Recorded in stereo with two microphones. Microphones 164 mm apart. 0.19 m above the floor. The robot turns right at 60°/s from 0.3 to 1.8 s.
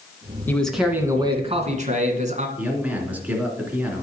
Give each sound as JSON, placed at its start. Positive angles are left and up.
{"t": 0.5, "sound": "a man speaking", "azimuth_deg": 165, "distance_m": 1.9}
{"t": 2.6, "sound": "a man speaking", "side_deg": -10, "distance_m": 2.5}